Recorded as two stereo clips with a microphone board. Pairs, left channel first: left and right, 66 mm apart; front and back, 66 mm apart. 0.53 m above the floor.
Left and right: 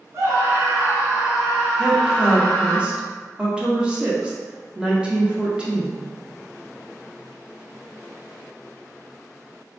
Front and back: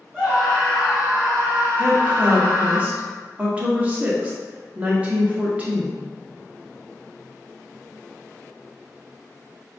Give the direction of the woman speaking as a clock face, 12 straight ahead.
5 o'clock.